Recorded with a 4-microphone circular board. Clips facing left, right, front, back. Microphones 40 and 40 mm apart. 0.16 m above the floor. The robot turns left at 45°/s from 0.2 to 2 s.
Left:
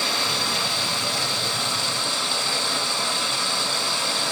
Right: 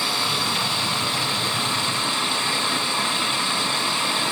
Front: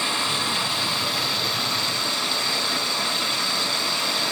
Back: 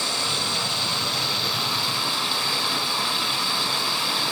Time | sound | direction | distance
0.0 | running water | 30° right | 1.2 m